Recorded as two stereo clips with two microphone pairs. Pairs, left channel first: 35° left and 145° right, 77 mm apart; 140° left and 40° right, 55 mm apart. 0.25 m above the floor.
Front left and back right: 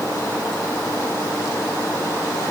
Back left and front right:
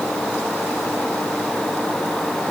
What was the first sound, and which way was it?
Only background noise.